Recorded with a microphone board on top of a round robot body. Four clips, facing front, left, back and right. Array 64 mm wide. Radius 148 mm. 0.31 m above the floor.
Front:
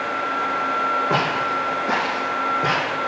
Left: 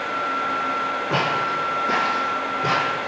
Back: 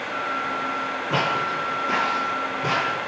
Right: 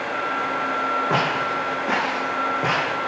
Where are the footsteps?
45° right, 3.5 m; by 3.0 s 65° right, 3.5 m.